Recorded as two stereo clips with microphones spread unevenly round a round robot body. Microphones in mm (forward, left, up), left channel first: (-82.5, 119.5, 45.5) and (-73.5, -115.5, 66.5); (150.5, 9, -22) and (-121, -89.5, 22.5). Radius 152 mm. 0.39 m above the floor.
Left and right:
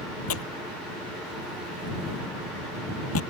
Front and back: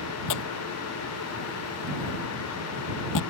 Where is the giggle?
No giggle in this recording.